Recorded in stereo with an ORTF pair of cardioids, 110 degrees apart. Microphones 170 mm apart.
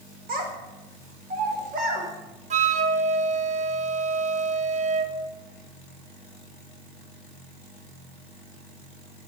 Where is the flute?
45° right, 1.3 m.